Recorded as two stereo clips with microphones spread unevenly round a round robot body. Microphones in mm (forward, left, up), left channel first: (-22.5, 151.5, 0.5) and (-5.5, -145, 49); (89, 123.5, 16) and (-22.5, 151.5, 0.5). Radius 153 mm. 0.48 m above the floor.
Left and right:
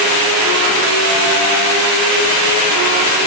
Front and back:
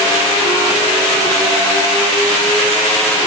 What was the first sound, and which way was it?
Only background noise.